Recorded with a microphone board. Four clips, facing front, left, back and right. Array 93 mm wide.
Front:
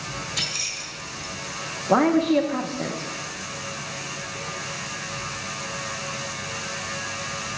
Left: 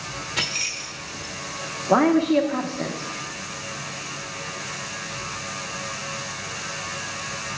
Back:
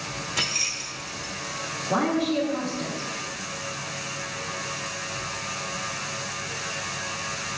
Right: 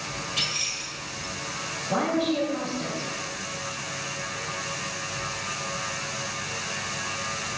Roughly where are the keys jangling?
Behind left.